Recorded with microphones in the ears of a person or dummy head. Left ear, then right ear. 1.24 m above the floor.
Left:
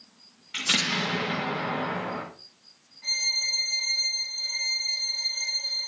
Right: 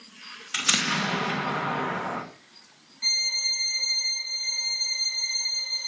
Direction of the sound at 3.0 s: 75° right (ahead or behind).